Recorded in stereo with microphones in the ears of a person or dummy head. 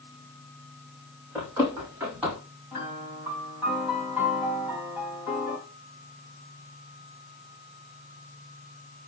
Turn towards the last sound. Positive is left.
turn(degrees=-15)  # may be behind; listen again after turning